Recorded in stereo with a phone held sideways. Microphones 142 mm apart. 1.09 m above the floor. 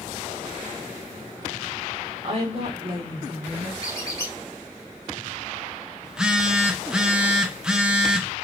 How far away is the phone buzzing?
About 0.6 m.